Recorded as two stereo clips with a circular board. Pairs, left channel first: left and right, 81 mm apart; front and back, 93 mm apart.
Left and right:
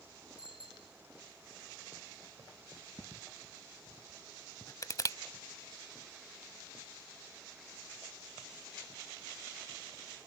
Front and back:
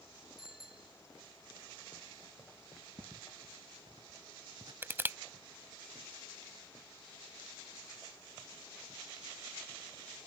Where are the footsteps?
140° left.